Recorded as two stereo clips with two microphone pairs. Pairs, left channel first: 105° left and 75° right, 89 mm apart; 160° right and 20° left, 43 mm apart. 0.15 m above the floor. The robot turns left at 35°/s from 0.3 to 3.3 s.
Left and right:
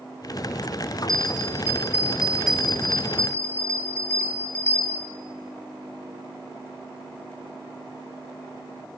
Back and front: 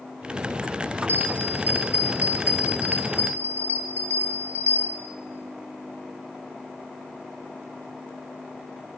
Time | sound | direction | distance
1.1 | a bell | 115° right | 1.6 m